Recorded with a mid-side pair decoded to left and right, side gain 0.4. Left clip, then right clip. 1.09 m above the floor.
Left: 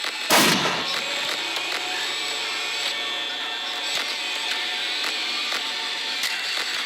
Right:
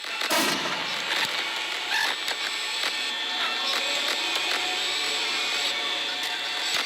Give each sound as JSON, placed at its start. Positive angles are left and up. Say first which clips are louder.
{"t": 0.3, "sound": "an explosion", "louder": "left 7 dB", "azimuth_deg": 65, "distance_m": 0.6}